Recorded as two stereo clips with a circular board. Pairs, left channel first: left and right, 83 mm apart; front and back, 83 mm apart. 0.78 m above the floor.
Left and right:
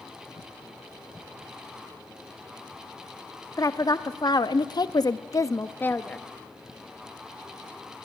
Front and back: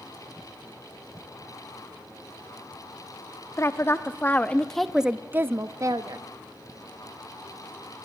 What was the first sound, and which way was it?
A woman speaking, 50° left.